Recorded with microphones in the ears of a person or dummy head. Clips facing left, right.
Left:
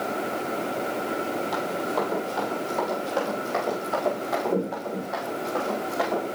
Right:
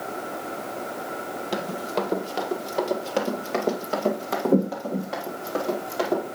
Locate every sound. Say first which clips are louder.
1.5 s running footsteps: right 4 dB; 40° right (ahead or behind), 2 m; by 6.2 s 35° right (ahead or behind), 3 m